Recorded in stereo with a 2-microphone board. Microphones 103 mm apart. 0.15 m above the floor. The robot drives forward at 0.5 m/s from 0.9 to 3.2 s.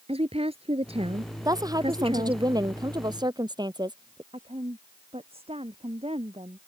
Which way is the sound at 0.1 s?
65° right (ahead or behind).